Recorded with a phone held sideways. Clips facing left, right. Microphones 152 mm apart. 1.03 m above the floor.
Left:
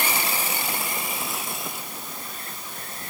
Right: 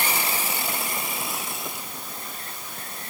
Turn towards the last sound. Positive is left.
No sound to turn to.